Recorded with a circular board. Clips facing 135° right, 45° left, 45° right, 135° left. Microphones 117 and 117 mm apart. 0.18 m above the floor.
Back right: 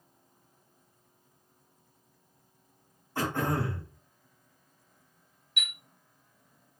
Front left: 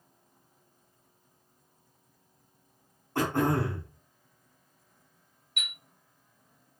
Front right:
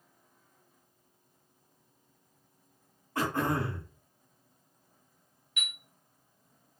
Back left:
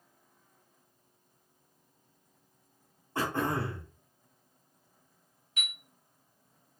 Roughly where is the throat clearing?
Left.